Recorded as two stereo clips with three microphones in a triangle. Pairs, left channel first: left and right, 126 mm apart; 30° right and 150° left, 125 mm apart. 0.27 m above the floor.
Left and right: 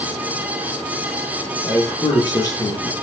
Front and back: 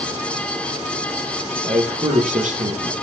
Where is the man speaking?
150° left, 5.5 m.